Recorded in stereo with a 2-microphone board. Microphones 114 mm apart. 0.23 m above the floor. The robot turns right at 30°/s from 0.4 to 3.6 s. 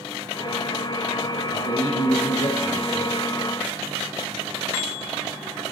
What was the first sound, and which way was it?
A man speaking, 130° left.